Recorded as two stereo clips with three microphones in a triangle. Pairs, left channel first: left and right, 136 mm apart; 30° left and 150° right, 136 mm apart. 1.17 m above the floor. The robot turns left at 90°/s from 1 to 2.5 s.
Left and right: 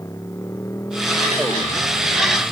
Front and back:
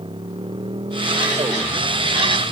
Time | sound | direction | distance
0.0 | a motorcycle | 160° left | ?